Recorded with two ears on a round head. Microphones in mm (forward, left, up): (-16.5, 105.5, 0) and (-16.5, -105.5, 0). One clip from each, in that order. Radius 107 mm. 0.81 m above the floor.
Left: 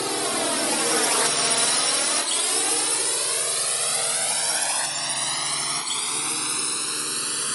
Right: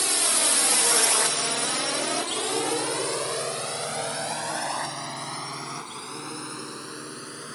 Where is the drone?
70° right (ahead or behind); by 7.5 s 70° left (ahead or behind).